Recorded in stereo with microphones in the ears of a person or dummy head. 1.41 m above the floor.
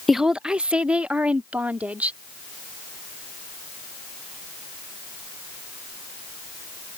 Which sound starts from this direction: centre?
A woman speaking, at 0.1 s.